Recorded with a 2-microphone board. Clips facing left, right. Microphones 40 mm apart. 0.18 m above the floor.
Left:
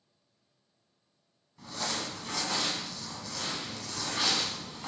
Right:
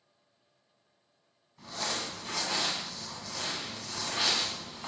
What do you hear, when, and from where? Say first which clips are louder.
1.6 s crumpling: even; 5° right (ahead or behind), 0.8 m